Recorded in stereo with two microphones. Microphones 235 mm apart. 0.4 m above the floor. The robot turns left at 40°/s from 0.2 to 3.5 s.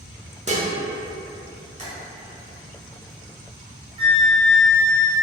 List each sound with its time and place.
0.5 s dishes clattering: 30° right (ahead or behind), 0.6 m; by 0.7 s 35° right (ahead or behind), 0.6 m
1.8 s tapping: 30° right (ahead or behind), 1.5 m; by 1.9 s 35° right (ahead or behind), 1.5 m
4.0 s a flute: 25° right (ahead or behind), 0.9 m